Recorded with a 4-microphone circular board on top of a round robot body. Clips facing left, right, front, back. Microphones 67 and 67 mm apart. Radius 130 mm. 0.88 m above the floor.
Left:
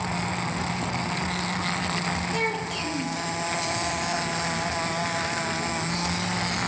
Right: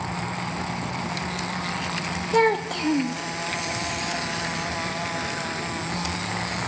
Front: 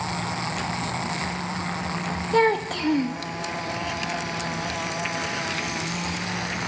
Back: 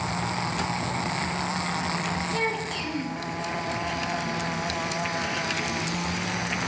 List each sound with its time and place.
2.3 s a child speaking: 45° right, 0.6 m